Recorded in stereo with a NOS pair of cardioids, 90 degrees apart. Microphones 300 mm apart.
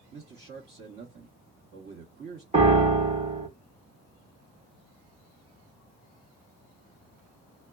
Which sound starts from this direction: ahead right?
A man speaking, at 0.1 s.